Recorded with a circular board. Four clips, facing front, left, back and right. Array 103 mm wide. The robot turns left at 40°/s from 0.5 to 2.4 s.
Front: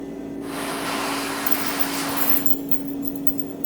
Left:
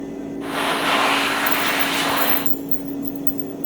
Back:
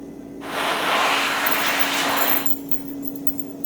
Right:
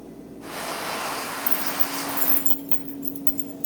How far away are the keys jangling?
About 2 m.